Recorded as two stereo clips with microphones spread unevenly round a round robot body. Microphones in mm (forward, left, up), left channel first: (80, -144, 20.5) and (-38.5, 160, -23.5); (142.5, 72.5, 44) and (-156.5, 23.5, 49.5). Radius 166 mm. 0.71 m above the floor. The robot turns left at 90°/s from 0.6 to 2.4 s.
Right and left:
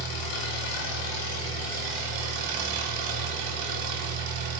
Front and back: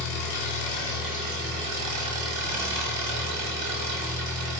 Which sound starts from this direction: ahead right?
An engine running, at 0.0 s.